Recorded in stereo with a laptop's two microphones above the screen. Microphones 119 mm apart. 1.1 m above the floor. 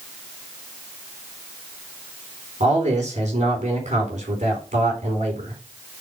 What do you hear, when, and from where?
2.6 s a man speaking: 85° right, 3.5 m